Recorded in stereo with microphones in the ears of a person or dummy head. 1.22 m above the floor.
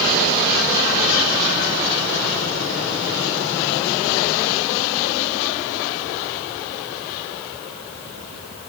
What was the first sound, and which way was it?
Only background noise.